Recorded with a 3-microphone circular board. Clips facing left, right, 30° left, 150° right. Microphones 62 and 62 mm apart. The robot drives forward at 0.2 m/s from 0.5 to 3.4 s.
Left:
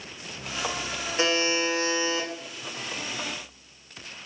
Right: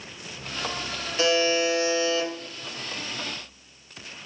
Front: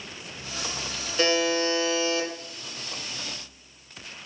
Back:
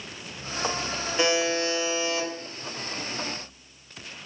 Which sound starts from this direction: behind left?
A buzzer, at 1.2 s.